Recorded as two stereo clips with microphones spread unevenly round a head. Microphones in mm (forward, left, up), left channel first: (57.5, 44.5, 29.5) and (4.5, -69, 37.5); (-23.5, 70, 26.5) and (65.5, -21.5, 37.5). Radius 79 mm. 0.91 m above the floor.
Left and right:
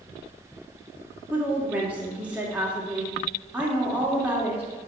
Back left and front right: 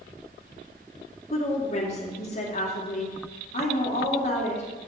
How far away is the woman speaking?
About 2.5 m.